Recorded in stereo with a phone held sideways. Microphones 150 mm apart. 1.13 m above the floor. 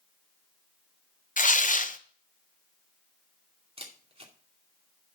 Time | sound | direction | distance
1.4 | tearing paper | 60° left (ahead or behind) | 0.8 m
3.8 | a camera shutter | 40° right (ahead or behind) | 2.5 m